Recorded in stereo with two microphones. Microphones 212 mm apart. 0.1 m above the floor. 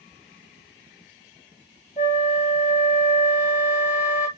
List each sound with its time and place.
2.0 s a flute: 40° left (ahead or behind), 2 m